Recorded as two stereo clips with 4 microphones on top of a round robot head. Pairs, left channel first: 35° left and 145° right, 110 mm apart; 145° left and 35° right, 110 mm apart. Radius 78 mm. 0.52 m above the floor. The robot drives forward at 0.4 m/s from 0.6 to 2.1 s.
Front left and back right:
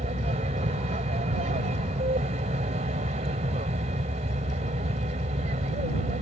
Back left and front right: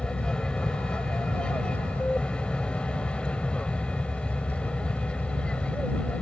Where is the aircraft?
135° right.